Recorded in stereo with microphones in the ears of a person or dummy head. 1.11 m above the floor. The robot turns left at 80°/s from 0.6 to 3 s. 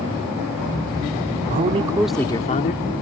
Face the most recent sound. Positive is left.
turn(degrees=110)